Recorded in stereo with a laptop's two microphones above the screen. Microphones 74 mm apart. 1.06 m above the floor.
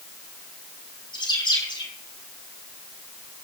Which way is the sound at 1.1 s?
80° left.